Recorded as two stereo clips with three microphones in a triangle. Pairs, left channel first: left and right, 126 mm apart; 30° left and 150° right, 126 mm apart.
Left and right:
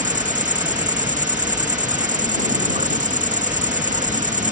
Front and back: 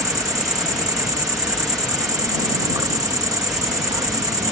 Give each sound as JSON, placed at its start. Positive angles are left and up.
{"t": 0.0, "sound": "an insect", "azimuth_deg": -90}